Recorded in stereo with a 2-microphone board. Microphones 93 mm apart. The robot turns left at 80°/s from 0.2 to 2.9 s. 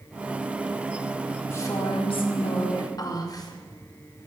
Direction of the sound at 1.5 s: 155° left.